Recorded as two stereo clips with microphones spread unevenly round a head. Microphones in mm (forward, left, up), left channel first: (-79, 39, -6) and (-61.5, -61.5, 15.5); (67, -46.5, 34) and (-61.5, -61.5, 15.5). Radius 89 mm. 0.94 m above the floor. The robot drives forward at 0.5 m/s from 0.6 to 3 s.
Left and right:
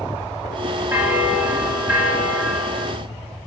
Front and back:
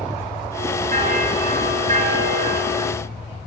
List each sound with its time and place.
0.9 s a bell: 150° right, 4.5 m; by 2.9 s 155° right, 5.5 m